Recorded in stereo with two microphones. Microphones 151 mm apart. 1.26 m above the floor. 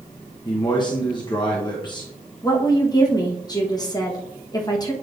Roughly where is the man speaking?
Left.